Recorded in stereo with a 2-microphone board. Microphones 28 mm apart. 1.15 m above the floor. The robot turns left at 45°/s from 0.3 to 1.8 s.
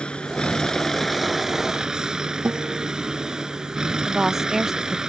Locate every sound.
0.0 s a vehicle: 40° left; by 5.1 s 25° right
2.5 s a guitar: 75° right (ahead or behind)
4.0 s a woman speaking: 20° right (ahead or behind)